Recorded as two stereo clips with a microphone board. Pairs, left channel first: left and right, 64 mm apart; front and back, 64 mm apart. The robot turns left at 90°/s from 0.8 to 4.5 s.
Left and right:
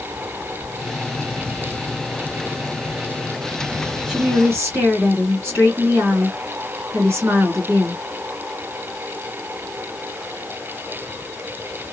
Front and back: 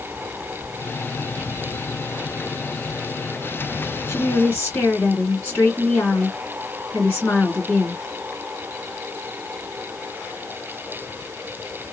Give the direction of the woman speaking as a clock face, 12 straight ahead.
12 o'clock.